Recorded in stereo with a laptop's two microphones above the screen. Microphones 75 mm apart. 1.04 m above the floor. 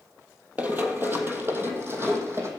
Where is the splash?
I don't hear a splash.